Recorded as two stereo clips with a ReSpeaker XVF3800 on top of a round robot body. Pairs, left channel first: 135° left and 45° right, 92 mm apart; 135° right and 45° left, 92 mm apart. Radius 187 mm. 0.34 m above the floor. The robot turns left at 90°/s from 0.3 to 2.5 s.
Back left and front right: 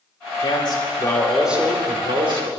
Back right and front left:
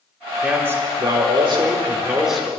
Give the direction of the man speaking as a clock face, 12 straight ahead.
8 o'clock.